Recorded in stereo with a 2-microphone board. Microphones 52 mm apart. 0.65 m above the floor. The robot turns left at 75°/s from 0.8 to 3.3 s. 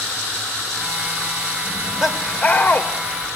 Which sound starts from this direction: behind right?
Laughter, at 1.6 s.